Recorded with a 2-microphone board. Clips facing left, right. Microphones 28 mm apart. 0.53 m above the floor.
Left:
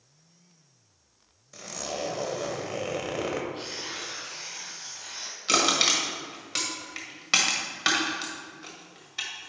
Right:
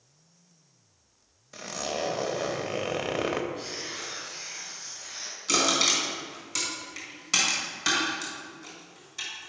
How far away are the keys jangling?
I don't hear keys jangling.